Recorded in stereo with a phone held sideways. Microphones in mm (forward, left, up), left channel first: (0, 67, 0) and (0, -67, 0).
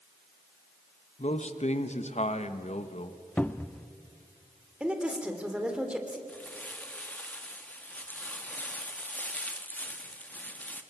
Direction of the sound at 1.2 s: 55° left (ahead or behind).